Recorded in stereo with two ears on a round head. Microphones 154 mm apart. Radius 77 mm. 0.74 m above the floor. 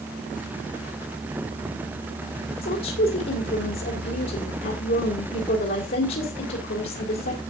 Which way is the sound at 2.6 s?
60° left (ahead or behind).